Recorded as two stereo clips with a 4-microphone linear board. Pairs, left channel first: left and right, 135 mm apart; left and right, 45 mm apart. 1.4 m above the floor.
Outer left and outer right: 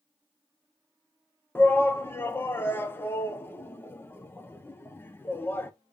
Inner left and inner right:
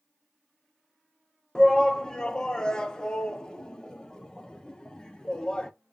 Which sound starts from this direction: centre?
A shout, at 1.6 s.